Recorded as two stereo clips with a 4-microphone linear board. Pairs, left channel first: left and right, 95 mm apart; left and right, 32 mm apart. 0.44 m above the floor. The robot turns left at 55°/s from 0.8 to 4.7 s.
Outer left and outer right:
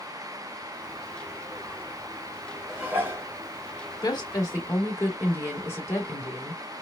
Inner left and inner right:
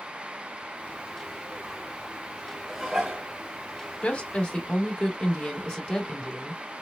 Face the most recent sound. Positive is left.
turn(degrees=30)